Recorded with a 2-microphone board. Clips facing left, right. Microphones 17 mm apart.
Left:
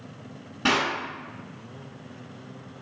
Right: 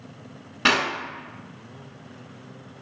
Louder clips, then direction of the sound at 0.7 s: Right 3 dB; 35° right (ahead or behind).